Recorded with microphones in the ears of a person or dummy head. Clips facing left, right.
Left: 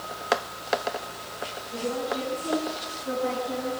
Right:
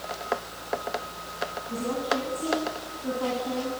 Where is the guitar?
I don't hear a guitar.